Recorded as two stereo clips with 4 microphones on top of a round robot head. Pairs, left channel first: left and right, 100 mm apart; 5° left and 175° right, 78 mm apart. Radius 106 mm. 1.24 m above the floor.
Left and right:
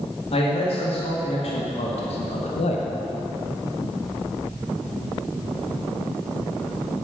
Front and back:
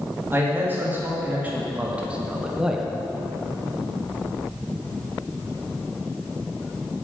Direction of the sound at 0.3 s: 120° left.